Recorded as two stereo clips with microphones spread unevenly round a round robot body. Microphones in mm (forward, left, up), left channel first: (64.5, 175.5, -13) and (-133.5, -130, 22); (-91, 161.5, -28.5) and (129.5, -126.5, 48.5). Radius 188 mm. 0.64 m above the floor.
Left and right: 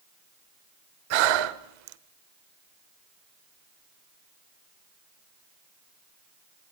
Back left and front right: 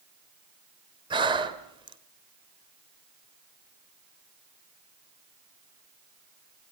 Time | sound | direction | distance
1.1 | breathing | 130° right | 1.2 m